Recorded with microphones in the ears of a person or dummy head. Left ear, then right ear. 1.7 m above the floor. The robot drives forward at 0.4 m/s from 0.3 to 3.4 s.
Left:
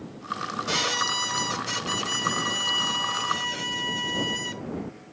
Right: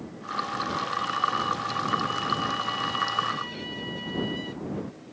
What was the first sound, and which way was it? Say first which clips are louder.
A violin: left 4 dB; 75° left (ahead or behind).